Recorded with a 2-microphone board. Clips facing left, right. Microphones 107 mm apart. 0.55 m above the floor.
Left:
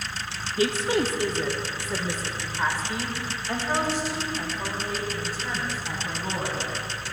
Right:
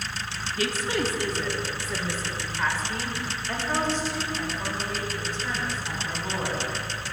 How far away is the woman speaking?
About 0.7 m.